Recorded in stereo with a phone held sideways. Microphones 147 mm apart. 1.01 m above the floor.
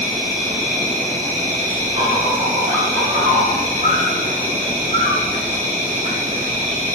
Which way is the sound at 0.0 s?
55° right (ahead or behind).